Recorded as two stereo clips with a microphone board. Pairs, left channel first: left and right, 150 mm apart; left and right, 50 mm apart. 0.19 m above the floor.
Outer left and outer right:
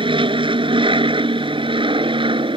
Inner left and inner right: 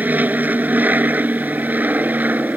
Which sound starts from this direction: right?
An aircraft, at 0.0 s.